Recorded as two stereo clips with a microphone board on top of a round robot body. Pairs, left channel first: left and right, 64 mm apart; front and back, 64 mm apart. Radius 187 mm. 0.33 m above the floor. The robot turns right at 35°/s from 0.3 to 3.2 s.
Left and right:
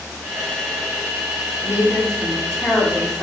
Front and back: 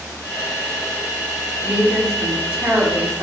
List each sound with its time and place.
1.6 s a woman speaking: 95° left, 1.9 m; by 3.2 s 150° left, 1.9 m